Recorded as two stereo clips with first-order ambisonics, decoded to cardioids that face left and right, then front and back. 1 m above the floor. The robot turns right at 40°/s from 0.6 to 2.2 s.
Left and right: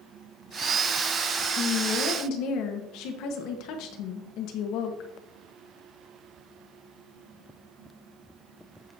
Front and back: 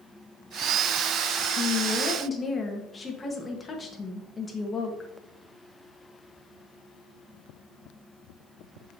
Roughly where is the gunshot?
No gunshot in this recording.